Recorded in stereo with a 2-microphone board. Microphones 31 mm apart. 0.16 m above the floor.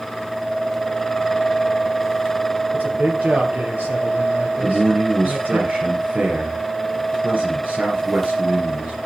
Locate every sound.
2.7 s a man speaking: 70° right (ahead or behind), 4 m
4.6 s a man speaking: 55° right (ahead or behind), 2.5 m